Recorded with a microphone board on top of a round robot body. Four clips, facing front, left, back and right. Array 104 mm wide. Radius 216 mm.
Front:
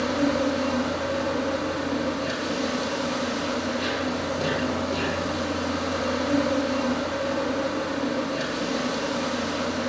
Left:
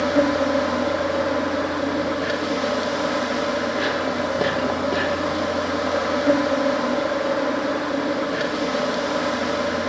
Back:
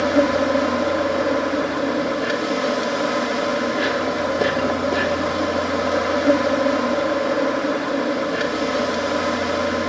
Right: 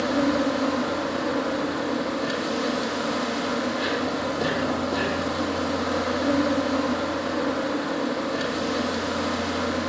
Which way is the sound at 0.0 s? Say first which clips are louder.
Left 3 dB, back 6 dB; 135° left.